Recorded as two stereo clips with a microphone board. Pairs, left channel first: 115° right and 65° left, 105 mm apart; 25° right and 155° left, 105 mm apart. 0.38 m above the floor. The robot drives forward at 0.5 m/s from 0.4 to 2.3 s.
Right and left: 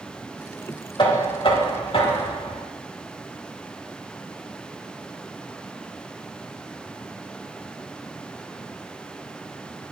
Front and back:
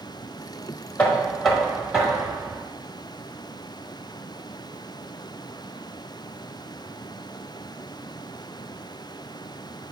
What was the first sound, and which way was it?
Knocking, 95° right.